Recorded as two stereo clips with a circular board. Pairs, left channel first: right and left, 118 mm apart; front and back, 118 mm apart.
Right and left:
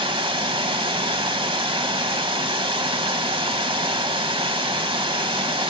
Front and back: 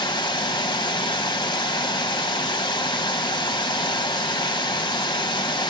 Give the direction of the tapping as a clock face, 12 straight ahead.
No tapping in this recording.